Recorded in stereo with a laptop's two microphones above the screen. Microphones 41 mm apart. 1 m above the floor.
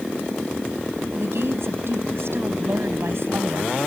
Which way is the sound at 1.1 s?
70° right (ahead or behind).